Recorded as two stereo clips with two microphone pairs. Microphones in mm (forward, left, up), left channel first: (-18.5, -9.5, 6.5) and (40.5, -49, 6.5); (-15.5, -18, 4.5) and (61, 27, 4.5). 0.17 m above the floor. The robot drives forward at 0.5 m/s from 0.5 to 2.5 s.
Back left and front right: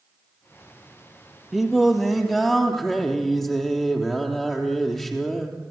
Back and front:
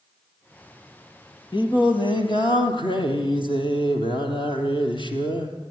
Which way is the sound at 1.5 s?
120° right.